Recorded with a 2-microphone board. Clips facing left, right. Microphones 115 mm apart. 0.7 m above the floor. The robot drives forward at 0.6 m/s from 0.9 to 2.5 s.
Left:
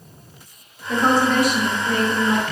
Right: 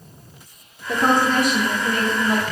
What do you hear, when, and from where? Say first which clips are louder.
0.9 s a woman speaking: left 1 dB; 60° right (ahead or behind), 1.6 m; by 2.4 s 45° right (ahead or behind), 1.9 m